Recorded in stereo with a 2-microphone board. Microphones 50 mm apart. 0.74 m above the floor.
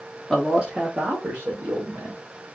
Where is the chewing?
No chewing in this recording.